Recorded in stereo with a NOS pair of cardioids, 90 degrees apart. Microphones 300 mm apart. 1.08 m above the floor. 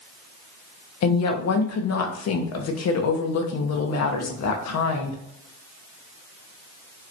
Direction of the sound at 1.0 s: 65° left.